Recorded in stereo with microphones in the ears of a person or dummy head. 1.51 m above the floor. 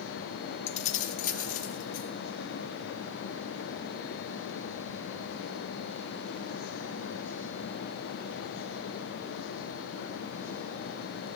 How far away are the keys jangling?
About 1.3 m.